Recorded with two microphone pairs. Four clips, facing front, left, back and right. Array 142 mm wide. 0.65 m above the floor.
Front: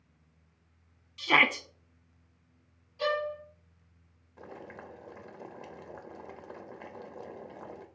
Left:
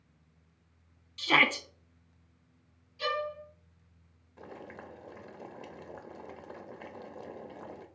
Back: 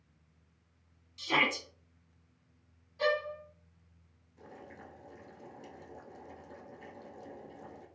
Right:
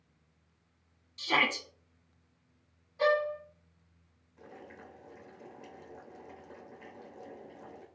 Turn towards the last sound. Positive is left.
turn(degrees=35)